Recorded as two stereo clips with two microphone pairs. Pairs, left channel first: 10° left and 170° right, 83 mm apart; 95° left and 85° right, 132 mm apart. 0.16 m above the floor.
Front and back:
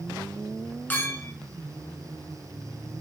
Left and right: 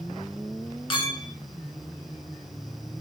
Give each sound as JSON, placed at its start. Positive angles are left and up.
{"t": 0.9, "sound": "a clink", "azimuth_deg": 70, "distance_m": 0.8}